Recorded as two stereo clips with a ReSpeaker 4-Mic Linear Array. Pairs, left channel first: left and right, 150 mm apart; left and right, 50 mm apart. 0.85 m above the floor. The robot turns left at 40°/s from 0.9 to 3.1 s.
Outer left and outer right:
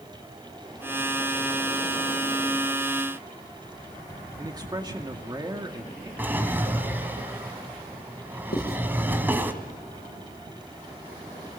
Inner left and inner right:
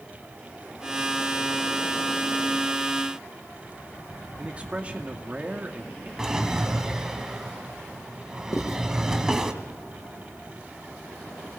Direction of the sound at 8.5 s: 85° left.